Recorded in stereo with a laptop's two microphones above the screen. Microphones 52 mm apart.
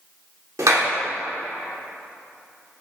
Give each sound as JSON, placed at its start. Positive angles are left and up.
{"t": 0.6, "sound": "a clap", "side_deg": -80, "distance_m": 1.9}